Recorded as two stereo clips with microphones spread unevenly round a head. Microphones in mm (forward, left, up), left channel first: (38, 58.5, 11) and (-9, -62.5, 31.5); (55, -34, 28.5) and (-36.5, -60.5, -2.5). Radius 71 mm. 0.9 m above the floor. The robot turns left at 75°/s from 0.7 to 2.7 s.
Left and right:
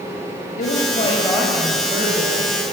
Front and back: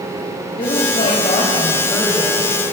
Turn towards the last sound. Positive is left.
turn(degrees=-110)